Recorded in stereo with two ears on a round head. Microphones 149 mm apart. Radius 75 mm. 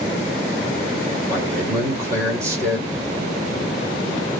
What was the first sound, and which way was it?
A man speaking, 20° right (ahead or behind).